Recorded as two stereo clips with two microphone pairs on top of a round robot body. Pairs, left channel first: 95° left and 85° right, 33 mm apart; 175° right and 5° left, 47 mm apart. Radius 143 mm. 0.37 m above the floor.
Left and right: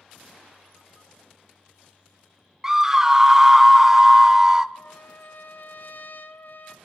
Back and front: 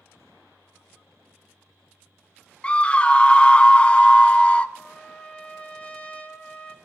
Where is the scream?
135° right, 0.8 m.